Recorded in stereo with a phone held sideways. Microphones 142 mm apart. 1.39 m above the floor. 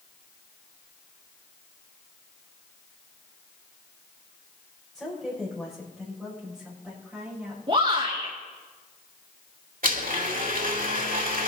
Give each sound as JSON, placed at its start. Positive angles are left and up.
{"t": 5.0, "sound": "a woman speaking", "side_deg": 5, "distance_m": 6.5}
{"t": 7.7, "sound": "a shout", "side_deg": -40, "distance_m": 2.0}
{"t": 9.8, "sound": "a blender", "side_deg": -75, "distance_m": 2.0}